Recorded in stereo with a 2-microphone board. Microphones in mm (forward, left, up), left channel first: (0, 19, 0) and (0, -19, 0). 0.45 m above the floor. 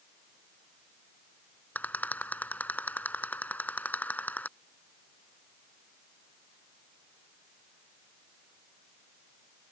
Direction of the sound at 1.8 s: 50° left (ahead or behind).